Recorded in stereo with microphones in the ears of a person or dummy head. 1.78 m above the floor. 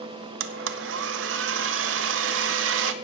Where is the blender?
70° right (ahead or behind), 0.8 m.